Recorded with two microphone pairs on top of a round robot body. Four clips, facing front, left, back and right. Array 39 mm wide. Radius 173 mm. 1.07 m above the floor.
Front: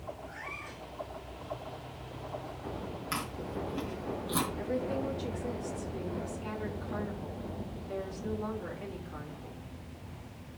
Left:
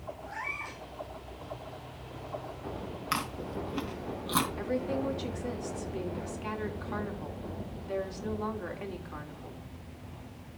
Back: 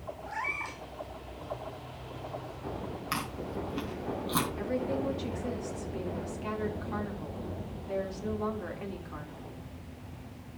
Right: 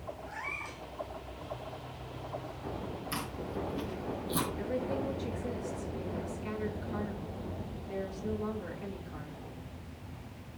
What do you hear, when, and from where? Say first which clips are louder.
0.3 s a cat meowing: left 3 dB, back 8 dB; 160° left, 3.5 m
3.1 s chewing: left 6 dB, back 2 dB; 110° left, 3 m
4.6 s a woman speaking: left 2 dB, back 1 dB; 110° left, 3.5 m